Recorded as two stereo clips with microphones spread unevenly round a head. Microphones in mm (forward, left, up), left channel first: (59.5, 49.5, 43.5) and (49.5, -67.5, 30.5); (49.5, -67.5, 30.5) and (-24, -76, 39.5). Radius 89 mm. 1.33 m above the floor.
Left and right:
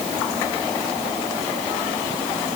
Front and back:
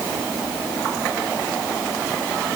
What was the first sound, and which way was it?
Only background noise.